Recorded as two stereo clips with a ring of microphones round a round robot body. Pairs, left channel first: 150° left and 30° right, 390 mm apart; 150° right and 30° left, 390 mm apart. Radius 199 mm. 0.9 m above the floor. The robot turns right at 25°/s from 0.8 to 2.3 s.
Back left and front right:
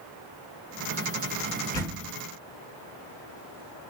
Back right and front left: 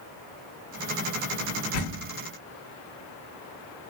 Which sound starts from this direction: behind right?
A door slam, at 1.7 s.